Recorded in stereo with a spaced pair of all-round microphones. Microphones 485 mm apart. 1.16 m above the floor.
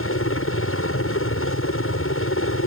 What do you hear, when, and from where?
0.0 s a helicopter: 25° left (ahead or behind)